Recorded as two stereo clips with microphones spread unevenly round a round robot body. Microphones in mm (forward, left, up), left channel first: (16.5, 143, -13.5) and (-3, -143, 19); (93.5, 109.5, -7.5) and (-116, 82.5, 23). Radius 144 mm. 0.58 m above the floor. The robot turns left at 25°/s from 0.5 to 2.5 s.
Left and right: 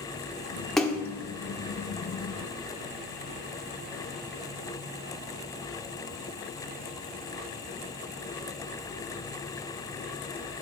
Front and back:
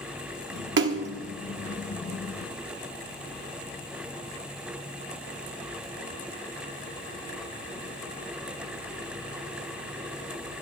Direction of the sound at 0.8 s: 170° left.